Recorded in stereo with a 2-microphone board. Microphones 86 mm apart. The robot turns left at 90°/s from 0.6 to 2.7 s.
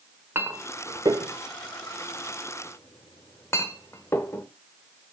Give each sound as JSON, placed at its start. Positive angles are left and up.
{"t": 0.3, "sound": "a clink", "side_deg": -25, "distance_m": 1.2}